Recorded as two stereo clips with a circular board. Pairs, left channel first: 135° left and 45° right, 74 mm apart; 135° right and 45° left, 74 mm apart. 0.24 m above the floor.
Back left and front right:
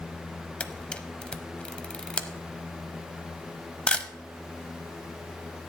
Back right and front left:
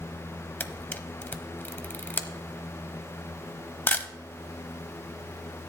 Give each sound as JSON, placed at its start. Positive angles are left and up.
{"t": 0.6, "sound": "a camera shutter", "azimuth_deg": -165, "distance_m": 0.8}